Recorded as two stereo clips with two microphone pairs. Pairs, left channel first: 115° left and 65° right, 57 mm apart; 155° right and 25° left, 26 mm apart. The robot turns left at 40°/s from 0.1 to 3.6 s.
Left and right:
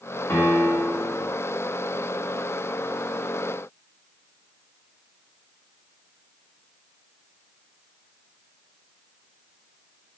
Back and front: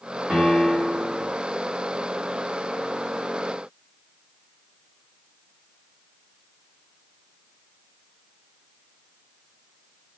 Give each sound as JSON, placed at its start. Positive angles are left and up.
{"t": 0.3, "sound": "a piano", "azimuth_deg": 95, "distance_m": 2.5}